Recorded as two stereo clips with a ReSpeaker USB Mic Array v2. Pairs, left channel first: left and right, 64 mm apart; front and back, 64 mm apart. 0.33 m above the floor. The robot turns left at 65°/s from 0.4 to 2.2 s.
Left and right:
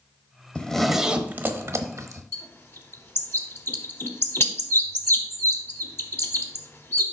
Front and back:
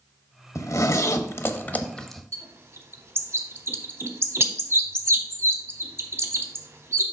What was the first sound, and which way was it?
A zipper, 20° left.